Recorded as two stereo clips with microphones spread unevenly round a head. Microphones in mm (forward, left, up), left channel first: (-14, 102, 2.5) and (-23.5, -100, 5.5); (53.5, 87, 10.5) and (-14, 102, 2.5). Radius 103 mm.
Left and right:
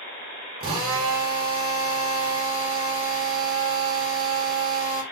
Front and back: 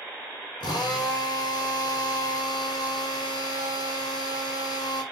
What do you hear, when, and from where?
0.6 s a drill: 25° right, 5.5 m